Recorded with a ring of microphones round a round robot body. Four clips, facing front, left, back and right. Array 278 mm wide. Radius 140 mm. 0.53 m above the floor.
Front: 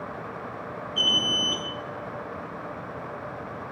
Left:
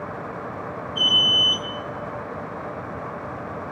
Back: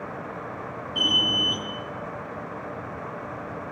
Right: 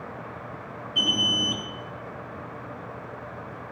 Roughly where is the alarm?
Behind right.